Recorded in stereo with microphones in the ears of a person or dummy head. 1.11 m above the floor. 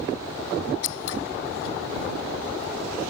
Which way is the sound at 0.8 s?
80° left.